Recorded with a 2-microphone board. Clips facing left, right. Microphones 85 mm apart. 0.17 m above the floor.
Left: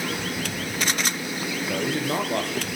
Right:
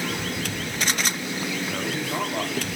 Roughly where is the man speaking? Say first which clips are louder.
Left 3 dB; left.